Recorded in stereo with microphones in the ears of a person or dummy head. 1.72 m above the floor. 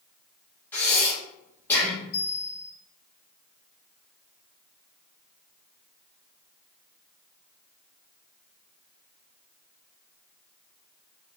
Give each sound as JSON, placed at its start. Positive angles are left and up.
{"t": 0.7, "sound": "breathing", "side_deg": 10, "distance_m": 1.3}
{"t": 2.1, "sound": "a bell", "side_deg": 50, "distance_m": 1.4}